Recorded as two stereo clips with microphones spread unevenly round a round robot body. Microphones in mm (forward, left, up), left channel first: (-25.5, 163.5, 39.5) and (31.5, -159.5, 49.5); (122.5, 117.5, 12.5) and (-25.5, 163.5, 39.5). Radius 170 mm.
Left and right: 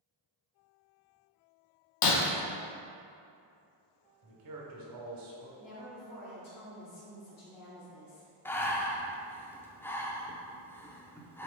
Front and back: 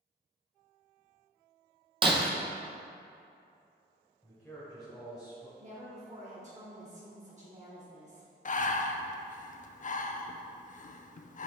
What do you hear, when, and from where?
2.0 s breaking glass: 120° left, 1.0 m
4.2 s a man speaking: 100° right, 1.7 m
5.6 s a woman speaking: 120° left, 1.9 m
8.4 s breathing: 15° left, 0.5 m